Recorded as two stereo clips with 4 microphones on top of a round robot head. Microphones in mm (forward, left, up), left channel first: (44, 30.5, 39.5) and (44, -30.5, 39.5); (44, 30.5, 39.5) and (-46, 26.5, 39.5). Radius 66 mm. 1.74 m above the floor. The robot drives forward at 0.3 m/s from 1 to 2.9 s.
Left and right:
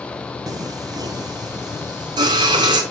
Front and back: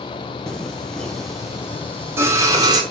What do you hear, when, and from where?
0.5 s singing: 80° right, 0.8 m; by 2.8 s 120° right, 0.9 m